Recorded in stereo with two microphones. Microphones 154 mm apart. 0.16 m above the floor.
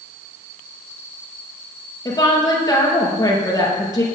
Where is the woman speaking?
25° left (ahead or behind), 4 m.